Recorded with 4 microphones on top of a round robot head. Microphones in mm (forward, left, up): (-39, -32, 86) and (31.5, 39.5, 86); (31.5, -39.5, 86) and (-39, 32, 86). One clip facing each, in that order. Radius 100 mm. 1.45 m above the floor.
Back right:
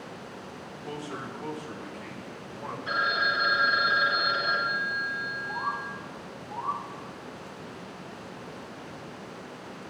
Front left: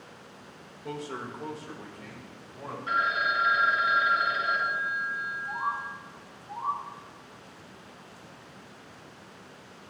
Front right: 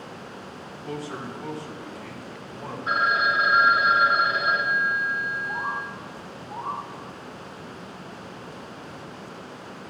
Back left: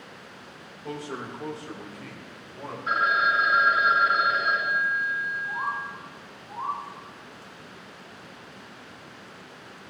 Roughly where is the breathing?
No breathing in this recording.